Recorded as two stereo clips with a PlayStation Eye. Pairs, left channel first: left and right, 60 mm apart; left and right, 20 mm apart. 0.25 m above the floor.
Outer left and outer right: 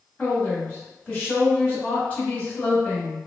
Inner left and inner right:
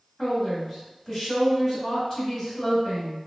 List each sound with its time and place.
0.2 s a woman speaking: 20° left (ahead or behind), 1.7 m